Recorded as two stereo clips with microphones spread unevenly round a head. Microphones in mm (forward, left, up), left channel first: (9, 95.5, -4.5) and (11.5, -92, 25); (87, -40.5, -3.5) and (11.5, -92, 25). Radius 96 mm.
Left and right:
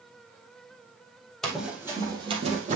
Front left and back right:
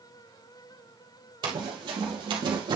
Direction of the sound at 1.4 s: 175° right.